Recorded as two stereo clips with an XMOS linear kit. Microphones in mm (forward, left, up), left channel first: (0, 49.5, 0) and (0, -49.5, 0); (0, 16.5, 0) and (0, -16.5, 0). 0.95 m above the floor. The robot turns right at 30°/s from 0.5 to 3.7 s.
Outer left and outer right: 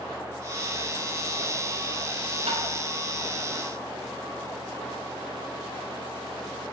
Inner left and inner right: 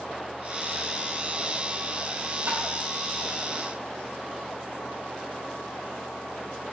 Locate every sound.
2.5 s tapping: 85° right, 3 m; by 2.6 s 90° right, 3 m